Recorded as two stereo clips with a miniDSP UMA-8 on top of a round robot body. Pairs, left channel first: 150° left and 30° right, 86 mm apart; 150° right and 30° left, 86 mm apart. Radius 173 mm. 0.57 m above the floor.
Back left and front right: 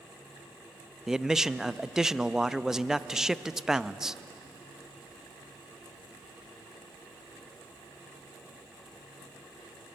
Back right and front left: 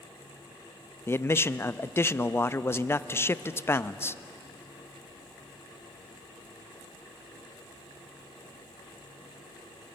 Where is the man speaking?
110° right, 0.7 m.